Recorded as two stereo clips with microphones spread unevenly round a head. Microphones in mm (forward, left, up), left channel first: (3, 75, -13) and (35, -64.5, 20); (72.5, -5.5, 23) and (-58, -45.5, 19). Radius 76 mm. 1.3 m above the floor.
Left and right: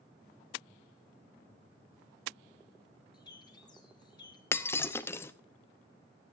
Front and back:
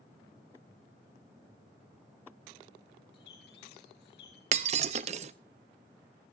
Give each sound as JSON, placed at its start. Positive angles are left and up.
{"t": 3.1, "sound": "a bird", "azimuth_deg": 40, "distance_m": 4.5}
{"t": 4.5, "sound": "breaking glass", "azimuth_deg": -175, "distance_m": 0.7}